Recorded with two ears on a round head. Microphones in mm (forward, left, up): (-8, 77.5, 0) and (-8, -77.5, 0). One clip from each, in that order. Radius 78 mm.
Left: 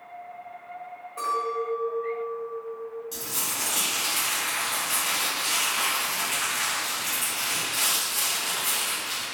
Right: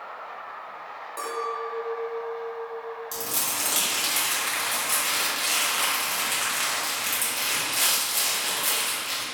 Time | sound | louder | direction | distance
1.2 | a clink | left 3 dB | 80° right | 1.8 m
3.1 | crumpling | right 2 dB | 45° right (ahead or behind) | 1.7 m